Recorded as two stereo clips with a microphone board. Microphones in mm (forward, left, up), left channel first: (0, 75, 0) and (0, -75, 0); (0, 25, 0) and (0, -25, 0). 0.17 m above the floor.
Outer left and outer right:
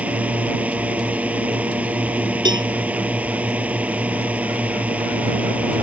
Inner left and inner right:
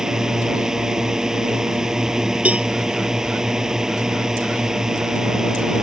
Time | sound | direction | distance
0.0 | a drone | 10° right (ahead or behind) | ?
2.5 | a cowbell | 30° right (ahead or behind) | ?